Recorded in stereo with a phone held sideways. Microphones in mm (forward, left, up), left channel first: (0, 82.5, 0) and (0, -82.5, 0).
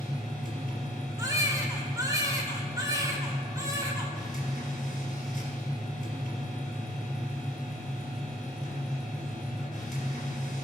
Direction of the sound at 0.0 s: 55° left (ahead or behind).